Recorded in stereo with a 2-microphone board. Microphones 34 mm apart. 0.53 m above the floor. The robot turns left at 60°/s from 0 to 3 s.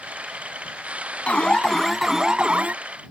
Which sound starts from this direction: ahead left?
An alarm, at 1.3 s.